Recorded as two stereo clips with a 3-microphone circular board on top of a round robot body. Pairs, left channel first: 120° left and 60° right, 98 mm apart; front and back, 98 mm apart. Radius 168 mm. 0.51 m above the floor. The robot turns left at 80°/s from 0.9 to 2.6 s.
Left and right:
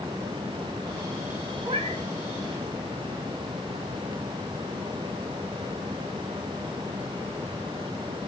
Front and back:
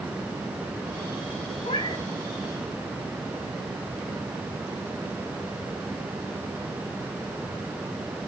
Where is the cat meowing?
15° right, 3 m; by 2.0 s 45° right, 3 m.